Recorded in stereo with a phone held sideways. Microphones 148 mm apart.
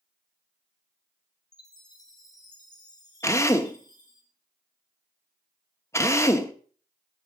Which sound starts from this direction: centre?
A drill, at 3.2 s.